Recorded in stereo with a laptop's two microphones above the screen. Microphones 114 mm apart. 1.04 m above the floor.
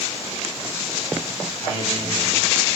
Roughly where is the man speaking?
Left.